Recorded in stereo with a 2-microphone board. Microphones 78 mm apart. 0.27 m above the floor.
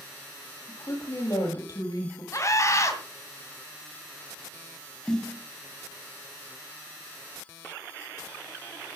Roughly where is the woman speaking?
Left.